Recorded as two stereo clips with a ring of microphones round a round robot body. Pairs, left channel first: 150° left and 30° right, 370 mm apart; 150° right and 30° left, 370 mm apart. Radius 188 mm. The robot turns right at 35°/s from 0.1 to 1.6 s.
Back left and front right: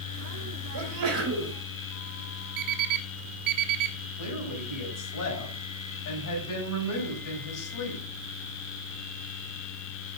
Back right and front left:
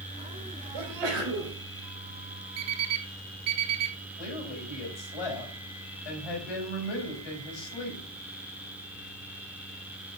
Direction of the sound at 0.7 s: 5° left.